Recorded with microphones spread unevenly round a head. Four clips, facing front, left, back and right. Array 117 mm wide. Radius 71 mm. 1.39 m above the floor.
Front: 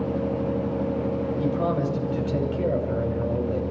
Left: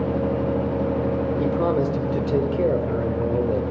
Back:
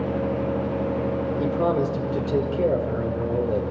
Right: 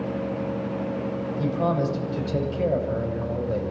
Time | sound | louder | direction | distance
1.4 | a man speaking | left 1 dB, back 3 dB | 120° left | 5.5 m